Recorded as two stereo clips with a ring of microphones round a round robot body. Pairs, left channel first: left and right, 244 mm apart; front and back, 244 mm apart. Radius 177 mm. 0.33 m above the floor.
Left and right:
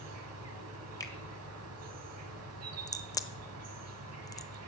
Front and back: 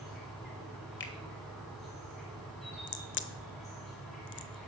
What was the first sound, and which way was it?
An insect, 90° right.